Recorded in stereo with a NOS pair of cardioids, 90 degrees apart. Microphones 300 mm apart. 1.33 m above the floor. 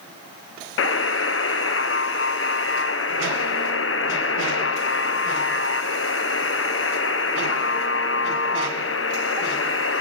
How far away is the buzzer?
About 0.6 m.